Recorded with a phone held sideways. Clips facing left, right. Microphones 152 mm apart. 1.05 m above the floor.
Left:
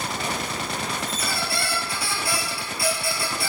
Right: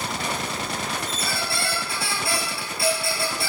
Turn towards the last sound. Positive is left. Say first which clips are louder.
# even
turn(degrees=-25)  # may be behind; listen again after turning